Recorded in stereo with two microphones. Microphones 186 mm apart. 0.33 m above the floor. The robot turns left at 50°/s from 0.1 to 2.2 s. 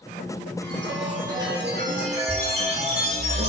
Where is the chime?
60° right, 4.5 m; by 3.5 s 140° right, 4.5 m.